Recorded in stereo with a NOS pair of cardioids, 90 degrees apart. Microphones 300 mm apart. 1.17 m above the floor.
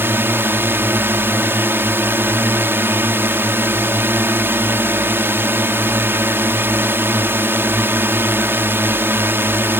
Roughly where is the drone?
Ahead.